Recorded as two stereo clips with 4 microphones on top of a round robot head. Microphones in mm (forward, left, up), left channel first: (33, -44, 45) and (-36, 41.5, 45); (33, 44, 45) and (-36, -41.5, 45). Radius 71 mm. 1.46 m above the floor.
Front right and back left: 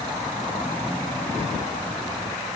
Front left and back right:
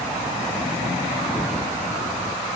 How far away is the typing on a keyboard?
I don't hear typing on a keyboard.